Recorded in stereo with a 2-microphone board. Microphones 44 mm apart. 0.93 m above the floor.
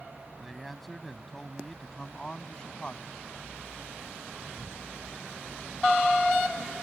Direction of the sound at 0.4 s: Centre (ahead or behind).